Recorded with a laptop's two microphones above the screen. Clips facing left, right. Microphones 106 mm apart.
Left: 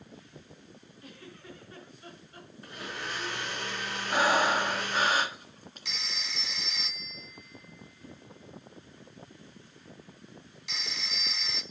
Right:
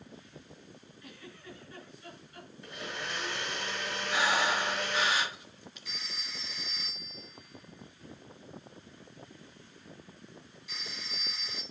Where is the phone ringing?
80° left, 0.9 m.